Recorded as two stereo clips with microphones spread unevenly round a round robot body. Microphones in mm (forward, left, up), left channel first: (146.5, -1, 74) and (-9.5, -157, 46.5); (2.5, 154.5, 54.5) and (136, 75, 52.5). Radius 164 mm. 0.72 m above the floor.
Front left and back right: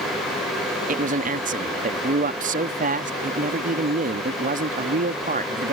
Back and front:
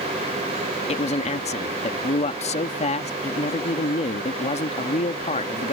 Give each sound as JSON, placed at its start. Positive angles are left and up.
{"t": 0.9, "sound": "a man speaking", "azimuth_deg": -175}